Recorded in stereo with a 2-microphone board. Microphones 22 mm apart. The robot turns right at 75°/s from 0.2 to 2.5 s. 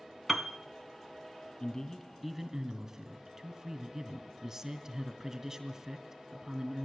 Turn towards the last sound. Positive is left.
turn(degrees=-165)